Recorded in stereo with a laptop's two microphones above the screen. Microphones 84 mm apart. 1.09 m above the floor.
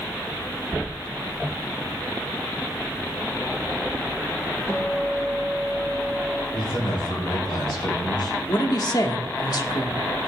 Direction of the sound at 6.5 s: 75° left (ahead or behind).